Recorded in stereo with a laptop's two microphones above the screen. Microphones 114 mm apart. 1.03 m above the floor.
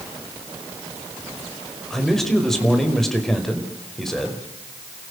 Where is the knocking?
I don't hear knocking.